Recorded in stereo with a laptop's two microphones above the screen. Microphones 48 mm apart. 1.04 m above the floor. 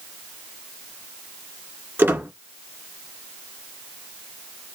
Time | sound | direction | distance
2.0 | a squeak | 50° right (ahead or behind) | 2.0 m